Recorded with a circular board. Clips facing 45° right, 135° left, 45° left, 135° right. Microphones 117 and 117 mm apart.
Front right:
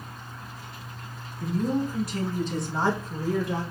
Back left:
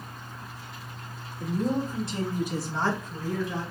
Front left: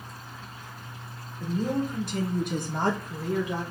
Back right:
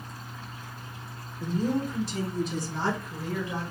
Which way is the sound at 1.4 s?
85° left.